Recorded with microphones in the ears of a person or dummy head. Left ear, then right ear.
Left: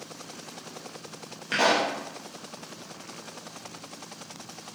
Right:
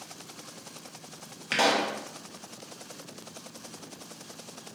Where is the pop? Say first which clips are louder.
Left 2 dB; 20° right (ahead or behind), 0.6 m.